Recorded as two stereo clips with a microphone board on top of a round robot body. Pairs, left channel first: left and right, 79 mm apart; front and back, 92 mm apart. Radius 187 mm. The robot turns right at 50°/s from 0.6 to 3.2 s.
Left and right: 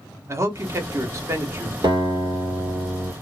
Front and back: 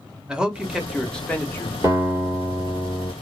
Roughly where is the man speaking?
Right.